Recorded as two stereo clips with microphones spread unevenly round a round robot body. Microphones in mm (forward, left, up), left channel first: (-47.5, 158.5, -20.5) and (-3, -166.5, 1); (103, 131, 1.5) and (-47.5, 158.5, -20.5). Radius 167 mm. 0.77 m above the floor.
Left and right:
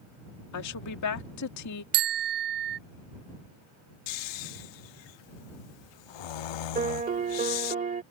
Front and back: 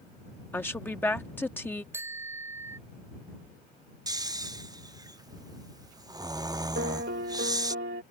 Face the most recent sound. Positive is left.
turn(degrees=-150)